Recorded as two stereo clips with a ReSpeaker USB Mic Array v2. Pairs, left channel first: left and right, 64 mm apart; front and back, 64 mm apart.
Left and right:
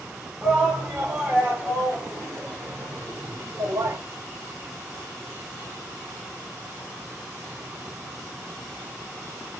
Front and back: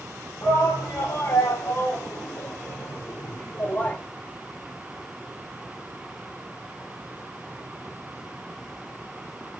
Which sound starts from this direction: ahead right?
A shout, at 0.4 s.